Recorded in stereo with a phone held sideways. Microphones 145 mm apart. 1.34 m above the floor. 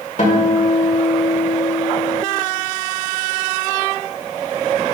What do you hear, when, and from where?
0.2 s a guitar: 55° left (ahead or behind), 1.6 m